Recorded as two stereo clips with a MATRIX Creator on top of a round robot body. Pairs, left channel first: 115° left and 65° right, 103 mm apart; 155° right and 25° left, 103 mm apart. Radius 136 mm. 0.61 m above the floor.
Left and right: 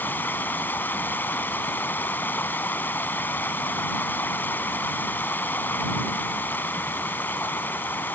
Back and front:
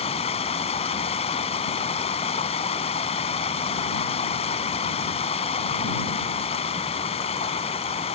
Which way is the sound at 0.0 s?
175° right.